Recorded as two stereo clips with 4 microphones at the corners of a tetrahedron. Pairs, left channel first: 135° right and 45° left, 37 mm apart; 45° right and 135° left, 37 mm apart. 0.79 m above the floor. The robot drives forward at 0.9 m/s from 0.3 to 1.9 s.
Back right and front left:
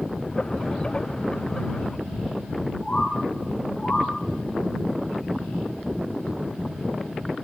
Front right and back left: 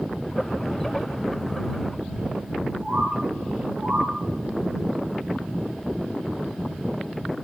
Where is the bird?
170° left, 8 m.